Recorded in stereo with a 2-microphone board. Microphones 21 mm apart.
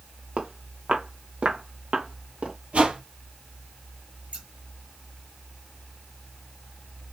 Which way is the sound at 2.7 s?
80° right.